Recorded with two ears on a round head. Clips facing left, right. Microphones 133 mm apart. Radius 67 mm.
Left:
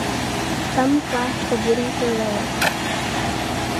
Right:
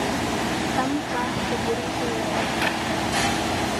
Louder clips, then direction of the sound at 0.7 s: Left 6 dB; 55° left (ahead or behind).